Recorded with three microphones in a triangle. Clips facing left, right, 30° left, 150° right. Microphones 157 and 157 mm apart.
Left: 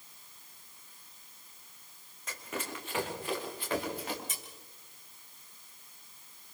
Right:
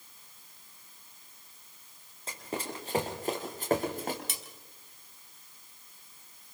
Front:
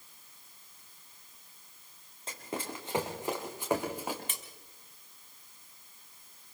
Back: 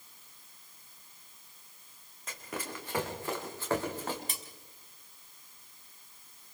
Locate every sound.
2.3 s running footsteps: 30° right, 4 m; by 4.2 s 50° right, 5 m
4.3 s cutlery clinking: 95° right, 3.5 m